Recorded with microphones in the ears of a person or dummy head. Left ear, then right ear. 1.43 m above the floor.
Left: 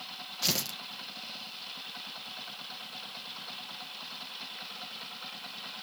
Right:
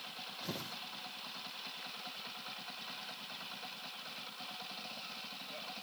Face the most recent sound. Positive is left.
turn(degrees=70)  # may be behind; listen again after turning